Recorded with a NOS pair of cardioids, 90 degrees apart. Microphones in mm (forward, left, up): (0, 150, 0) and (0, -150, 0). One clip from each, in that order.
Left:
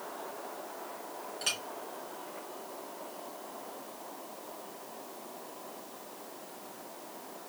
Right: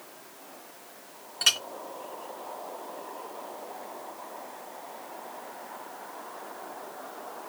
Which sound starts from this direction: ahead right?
A clink, at 1.4 s.